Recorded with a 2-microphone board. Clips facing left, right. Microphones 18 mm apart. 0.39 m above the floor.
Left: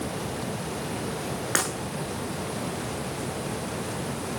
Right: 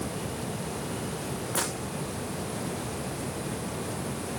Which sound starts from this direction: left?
Breaking glass, at 1.6 s.